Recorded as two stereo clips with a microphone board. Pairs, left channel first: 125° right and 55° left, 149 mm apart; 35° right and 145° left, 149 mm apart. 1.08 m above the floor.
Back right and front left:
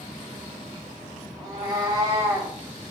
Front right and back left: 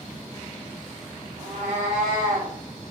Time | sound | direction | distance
1.4 | a cat meowing | 105° left | 1.1 m